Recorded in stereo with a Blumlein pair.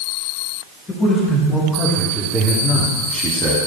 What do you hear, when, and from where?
0.9 s a man speaking: 15° left, 4.5 m; by 3.6 s 30° right, 2.5 m